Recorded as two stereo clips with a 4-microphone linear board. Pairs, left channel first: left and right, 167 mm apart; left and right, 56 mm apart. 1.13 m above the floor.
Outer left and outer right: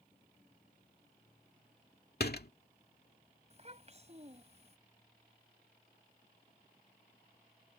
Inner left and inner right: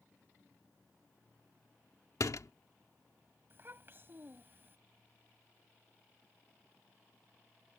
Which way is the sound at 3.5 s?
40° right (ahead or behind).